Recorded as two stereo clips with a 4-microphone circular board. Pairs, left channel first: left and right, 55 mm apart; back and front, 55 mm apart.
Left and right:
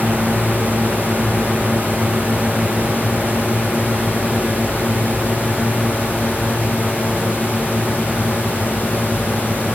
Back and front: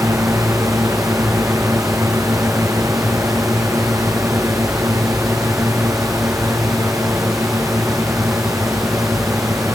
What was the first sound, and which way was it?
A drone, 15° right.